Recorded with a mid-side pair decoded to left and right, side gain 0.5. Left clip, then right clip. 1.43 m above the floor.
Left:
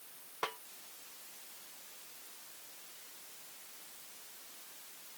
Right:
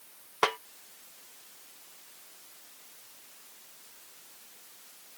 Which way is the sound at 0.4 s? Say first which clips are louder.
Right 12 dB; 65° right.